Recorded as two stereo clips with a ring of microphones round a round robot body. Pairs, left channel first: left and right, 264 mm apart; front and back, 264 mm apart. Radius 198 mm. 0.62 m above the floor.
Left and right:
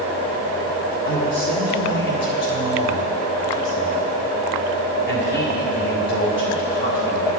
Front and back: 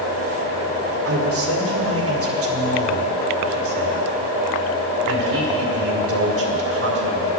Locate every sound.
1.1 s a man speaking: 140° left, 1.8 m